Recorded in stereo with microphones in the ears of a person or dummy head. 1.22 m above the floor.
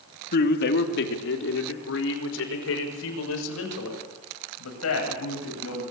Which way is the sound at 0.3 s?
60° left (ahead or behind).